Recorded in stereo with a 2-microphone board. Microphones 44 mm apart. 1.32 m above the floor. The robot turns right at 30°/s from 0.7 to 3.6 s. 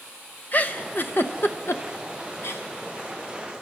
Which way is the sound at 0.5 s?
40° left (ahead or behind).